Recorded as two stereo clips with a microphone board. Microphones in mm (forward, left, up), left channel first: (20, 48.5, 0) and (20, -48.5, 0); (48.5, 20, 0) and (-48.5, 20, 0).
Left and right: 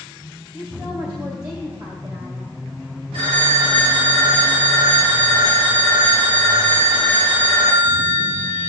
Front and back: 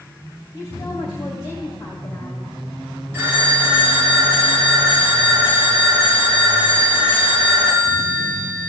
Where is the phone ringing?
115° right, 4 m.